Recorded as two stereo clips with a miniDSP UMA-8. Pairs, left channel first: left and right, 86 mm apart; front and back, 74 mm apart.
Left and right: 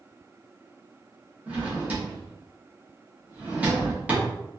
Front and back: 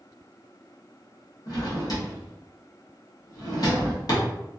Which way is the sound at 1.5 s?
20° right.